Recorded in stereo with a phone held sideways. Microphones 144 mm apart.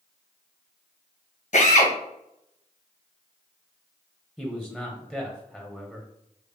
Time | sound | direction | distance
1.5 | a drill | 60° left (ahead or behind) | 1.0 m
4.4 | a man speaking | 5° right (ahead or behind) | 0.8 m